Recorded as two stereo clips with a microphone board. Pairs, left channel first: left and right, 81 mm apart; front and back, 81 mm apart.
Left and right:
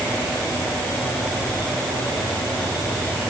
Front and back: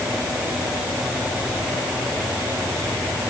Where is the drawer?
I don't hear a drawer.